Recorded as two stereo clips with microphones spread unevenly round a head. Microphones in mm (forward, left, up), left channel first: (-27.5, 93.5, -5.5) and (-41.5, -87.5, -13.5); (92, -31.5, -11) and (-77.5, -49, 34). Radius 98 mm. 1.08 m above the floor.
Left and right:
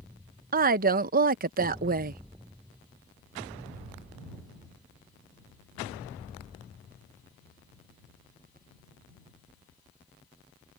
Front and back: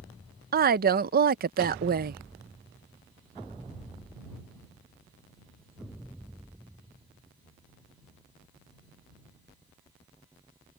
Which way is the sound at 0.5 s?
135° right.